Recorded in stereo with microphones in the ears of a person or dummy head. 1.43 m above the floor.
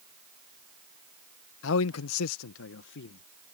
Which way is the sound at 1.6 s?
70° left (ahead or behind).